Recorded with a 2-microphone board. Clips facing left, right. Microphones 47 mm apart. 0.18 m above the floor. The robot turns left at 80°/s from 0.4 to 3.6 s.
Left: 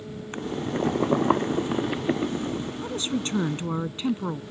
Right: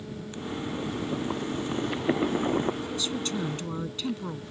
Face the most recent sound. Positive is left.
turn(degrees=40)